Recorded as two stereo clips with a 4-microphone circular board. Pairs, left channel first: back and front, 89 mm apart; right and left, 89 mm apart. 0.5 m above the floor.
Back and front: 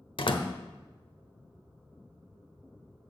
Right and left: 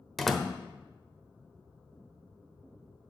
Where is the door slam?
175° right, 1.0 m.